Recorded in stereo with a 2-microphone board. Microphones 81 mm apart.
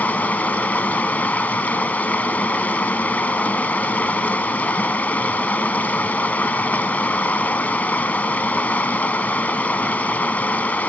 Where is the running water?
20° left (ahead or behind), 1.2 m.